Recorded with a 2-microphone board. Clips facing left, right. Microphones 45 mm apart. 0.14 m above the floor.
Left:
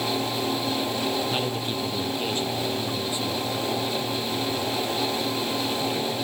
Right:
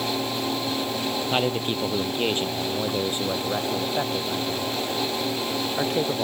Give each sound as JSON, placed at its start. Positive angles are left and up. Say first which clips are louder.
{"t": 1.3, "sound": "a man speaking", "louder": "right 3 dB", "side_deg": -30}